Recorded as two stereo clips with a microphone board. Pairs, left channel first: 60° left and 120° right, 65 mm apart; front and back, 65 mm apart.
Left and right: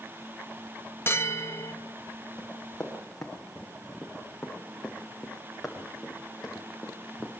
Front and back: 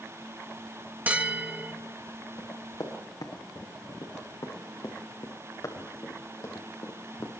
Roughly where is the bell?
Behind left.